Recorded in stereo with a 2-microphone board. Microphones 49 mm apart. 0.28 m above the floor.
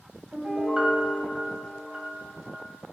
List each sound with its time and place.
0.3 s a piano: 20° right (ahead or behind), 1.3 m